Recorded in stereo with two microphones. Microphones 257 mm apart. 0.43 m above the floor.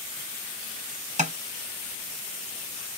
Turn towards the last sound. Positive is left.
turn(degrees=-30)  # may be behind; listen again after turning